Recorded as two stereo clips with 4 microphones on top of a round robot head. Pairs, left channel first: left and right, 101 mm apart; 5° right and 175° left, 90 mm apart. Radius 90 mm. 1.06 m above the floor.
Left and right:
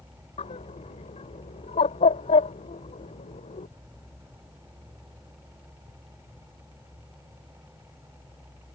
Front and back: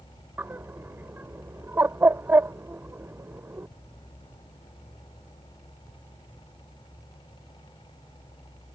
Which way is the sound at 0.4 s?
110° left.